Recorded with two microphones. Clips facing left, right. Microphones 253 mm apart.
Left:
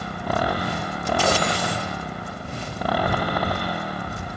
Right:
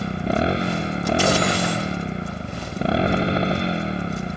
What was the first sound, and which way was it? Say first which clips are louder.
A motorcycle: right 4 dB; 25° right (ahead or behind).